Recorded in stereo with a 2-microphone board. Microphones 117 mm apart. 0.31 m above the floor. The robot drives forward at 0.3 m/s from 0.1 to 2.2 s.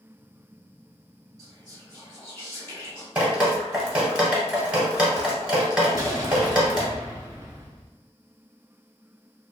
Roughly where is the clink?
No clink in this recording.